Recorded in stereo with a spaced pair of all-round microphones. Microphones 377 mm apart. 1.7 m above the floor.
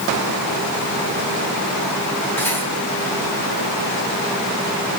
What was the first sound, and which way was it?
Cutlery clinking, 5° left (ahead or behind).